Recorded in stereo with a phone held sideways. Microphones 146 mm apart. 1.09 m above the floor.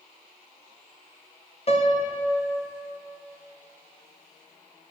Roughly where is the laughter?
I don't hear laughter.